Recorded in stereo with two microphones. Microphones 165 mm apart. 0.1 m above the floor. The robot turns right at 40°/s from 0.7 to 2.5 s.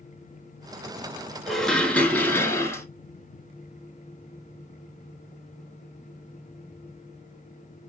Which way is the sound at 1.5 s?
Centre (ahead or behind).